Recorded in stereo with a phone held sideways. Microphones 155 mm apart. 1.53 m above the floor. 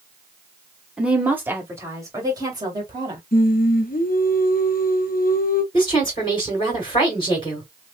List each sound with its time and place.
1.0 s a woman speaking: 5° right (ahead or behind), 1.3 m; by 3.2 s 30° right (ahead or behind), 2.5 m
3.3 s singing: 65° left (ahead or behind), 0.6 m
5.7 s a woman speaking: 35° left (ahead or behind), 2.5 m